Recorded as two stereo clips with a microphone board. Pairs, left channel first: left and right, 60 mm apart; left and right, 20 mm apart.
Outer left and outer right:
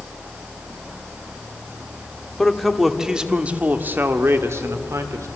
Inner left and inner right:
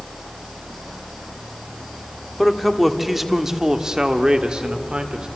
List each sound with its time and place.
2.4 s a man speaking: 10° left (ahead or behind), 1.6 m; by 5.3 s 55° right (ahead or behind), 2 m